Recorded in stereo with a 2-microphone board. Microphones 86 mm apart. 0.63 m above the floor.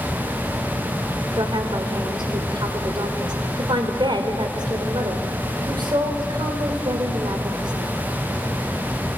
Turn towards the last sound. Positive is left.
turn(degrees=-65)  # may be behind; listen again after turning